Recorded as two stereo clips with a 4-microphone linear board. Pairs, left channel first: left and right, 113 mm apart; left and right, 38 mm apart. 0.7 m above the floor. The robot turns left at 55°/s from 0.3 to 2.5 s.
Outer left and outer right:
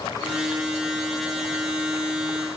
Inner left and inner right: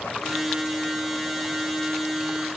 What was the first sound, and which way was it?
Only background noise.